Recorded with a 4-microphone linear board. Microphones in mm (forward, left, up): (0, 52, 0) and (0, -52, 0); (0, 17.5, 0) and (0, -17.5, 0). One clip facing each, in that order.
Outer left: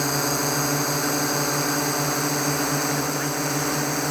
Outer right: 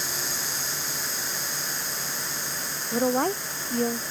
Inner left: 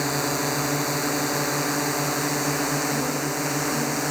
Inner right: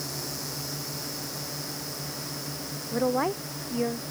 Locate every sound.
0.0 s a drone: 65° left (ahead or behind); by 4.1 s 70° left (ahead or behind)
2.9 s a woman speaking: 50° right (ahead or behind)